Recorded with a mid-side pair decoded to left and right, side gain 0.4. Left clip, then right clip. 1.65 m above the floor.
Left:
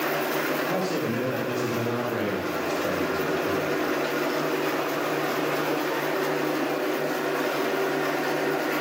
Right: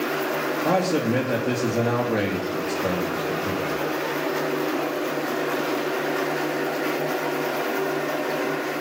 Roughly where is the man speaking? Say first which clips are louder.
Right 5 dB; ahead right.